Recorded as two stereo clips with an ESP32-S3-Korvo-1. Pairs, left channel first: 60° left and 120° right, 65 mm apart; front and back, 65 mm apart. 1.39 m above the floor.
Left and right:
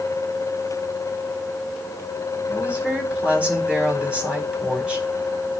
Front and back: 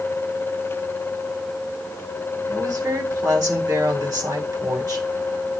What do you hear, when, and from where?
2.5 s a woman speaking: 165° left, 9 m